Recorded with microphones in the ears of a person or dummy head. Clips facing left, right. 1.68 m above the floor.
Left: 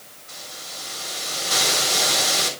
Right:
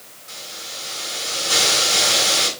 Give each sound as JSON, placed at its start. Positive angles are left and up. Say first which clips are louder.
{"t": 0.3, "sound": "a hiss", "louder": "right 2 dB", "side_deg": -55, "distance_m": 3.5}